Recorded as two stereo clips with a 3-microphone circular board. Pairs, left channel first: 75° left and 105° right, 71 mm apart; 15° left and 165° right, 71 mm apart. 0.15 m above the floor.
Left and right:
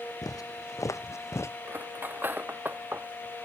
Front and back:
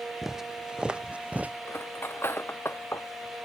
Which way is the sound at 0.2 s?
110° left.